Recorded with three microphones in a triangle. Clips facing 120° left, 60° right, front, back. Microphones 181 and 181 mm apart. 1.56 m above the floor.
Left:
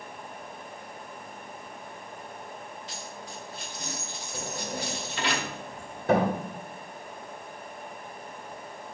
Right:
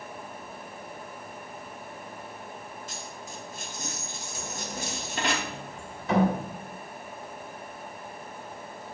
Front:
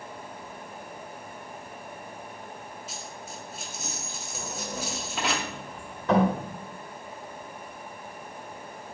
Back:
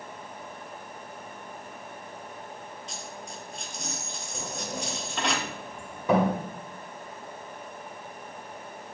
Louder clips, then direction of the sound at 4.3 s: Left 3 dB, even; 105° left.